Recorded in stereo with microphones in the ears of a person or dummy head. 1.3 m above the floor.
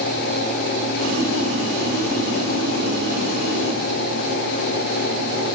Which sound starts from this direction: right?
Boiling, at 1.0 s.